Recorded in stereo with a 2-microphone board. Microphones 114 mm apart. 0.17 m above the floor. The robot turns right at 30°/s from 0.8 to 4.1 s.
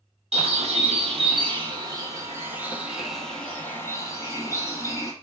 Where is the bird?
70° right, 0.8 m; by 5.1 s 30° left, 0.8 m.